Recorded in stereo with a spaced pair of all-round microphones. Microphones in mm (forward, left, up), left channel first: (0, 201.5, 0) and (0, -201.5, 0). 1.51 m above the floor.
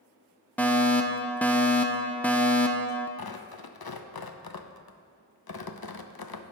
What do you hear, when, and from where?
0.6 s a fire alarm: 5° left (ahead or behind), 0.6 m
3.2 s tearing paper: 65° left (ahead or behind), 0.6 m